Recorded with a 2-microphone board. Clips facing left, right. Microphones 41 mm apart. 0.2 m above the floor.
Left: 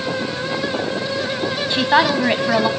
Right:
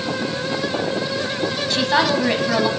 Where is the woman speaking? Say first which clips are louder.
Left 3 dB; 20° left (ahead or behind), 1.0 m.